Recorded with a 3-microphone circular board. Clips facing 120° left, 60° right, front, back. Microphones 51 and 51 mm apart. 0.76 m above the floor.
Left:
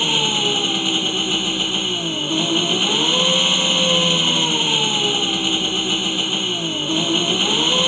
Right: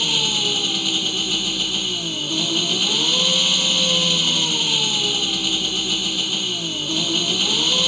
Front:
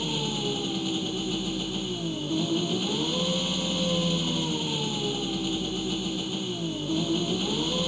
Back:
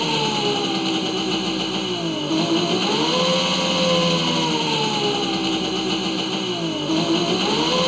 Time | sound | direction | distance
0.0 | an engine running | 175° right | ?